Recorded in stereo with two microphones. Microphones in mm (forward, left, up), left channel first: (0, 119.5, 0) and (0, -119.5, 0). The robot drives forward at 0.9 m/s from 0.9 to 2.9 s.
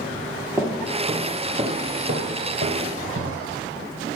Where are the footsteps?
10° right (ahead or behind), 2 m; by 3.6 s 65° right (ahead or behind), 3 m.